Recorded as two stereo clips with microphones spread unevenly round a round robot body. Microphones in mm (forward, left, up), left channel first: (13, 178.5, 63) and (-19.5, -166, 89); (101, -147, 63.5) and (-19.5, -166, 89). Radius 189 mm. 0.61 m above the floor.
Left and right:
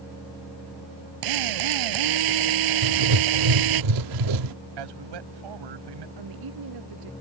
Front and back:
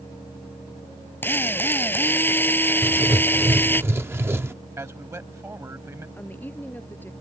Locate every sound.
1.2 s a drill: 65° right
2.8 s writing: 95° right
4.8 s a man speaking: 100° right
6.2 s a woman speaking: 65° right